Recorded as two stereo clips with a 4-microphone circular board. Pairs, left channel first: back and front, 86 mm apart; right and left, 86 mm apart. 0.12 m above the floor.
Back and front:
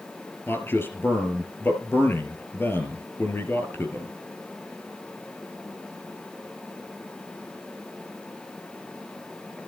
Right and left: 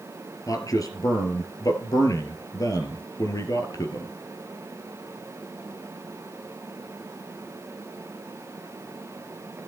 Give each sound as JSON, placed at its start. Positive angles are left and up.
{"t": 0.5, "sound": "a man speaking", "azimuth_deg": -120, "distance_m": 1.8}